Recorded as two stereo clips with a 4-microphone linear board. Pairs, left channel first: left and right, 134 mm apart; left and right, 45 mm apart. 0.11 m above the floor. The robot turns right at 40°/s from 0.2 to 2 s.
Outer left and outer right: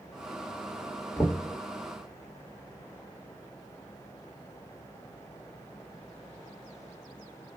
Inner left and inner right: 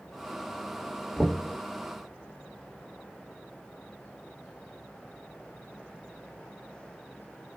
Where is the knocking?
15° left (ahead or behind), 1.2 m; by 1.6 s 25° left (ahead or behind), 1.2 m.